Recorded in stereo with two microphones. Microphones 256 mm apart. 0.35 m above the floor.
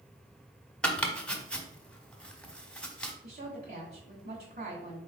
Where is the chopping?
5° left (ahead or behind), 0.6 m.